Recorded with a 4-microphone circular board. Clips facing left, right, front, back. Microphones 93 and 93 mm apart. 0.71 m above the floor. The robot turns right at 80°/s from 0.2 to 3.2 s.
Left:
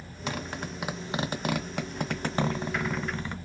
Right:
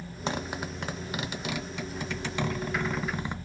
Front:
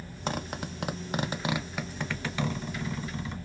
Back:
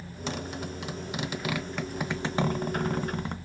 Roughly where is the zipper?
Ahead right.